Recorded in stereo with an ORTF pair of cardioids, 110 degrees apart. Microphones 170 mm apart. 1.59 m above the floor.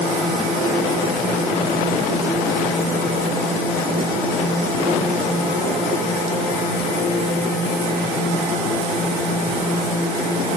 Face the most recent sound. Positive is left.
No sound to turn to.